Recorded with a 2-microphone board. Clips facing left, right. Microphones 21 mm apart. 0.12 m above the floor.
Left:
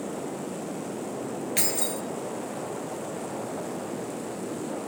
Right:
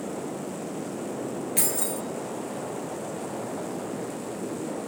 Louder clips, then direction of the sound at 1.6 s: Left 1 dB; 25° left (ahead or behind).